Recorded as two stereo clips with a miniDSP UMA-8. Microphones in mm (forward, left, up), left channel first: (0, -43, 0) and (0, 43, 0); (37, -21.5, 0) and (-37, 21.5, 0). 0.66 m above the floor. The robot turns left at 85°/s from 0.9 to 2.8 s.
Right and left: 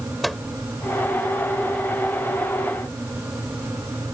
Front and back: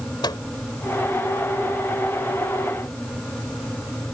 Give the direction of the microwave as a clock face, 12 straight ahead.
12 o'clock.